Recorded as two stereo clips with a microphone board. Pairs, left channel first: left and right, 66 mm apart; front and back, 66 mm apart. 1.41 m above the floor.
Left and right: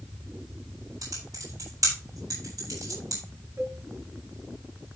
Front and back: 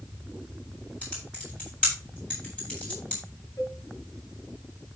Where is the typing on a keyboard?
70° right, 8 m.